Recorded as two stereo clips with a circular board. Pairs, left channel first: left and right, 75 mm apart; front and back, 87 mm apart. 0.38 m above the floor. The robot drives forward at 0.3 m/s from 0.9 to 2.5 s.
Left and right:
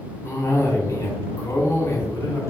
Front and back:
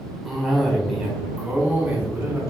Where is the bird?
I don't hear a bird.